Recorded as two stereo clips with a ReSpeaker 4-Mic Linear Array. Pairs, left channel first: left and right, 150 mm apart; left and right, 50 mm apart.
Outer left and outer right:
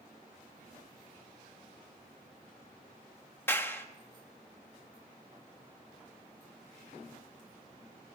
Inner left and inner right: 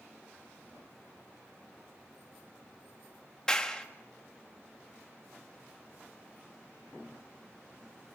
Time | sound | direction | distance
3.5 | a clap | 15° left (ahead or behind) | 1.4 m